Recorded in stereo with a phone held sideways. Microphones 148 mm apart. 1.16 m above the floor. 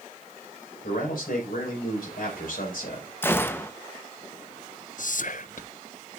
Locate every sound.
0.8 s a man speaking: 75° left (ahead or behind), 5.5 m
3.2 s a gunshot: 15° left (ahead or behind), 1.0 m
5.0 s whispering: 60° left (ahead or behind), 0.6 m